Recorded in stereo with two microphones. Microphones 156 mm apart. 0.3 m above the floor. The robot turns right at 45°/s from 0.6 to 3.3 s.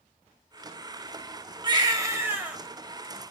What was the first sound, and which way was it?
A baby crying, 55° right.